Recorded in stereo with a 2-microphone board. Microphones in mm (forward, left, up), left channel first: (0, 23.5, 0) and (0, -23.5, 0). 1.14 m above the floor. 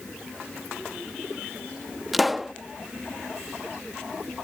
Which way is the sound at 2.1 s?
Centre (ahead or behind).